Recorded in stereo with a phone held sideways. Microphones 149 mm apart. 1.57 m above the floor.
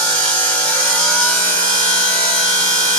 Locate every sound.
0.0 s a machine running: 10° left (ahead or behind), 1.4 m